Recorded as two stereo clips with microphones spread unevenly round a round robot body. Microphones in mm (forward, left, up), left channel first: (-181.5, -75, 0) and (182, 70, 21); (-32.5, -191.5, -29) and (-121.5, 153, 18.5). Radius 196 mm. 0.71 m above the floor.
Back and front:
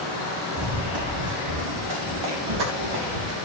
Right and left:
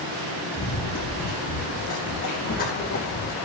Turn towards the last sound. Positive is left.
turn(degrees=-5)